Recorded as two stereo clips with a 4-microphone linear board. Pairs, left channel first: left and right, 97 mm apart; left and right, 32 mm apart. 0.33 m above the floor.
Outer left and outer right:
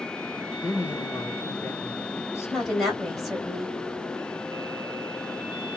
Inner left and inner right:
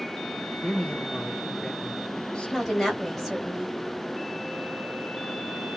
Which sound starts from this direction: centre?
A woman speaking, at 2.5 s.